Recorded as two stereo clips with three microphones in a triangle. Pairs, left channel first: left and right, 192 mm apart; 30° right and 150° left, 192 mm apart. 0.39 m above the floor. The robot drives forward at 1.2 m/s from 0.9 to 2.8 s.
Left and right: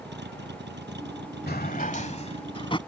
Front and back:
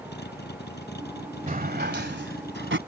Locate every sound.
0.0 s a vehicle: 60° right; by 2.9 s 65° right
1.5 s a drawer: 110° left; by 2.8 s 155° left